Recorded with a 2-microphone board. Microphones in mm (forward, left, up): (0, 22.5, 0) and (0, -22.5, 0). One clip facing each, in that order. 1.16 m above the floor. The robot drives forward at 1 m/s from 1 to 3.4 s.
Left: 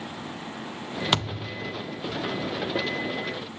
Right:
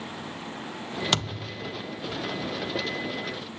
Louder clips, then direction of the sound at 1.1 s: Left 4 dB; 10° left (ahead or behind).